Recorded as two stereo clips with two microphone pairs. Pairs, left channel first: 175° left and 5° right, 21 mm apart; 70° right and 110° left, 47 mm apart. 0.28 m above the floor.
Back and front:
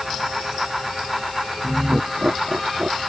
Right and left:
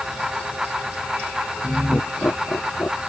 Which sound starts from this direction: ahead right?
Laughter, at 1.6 s.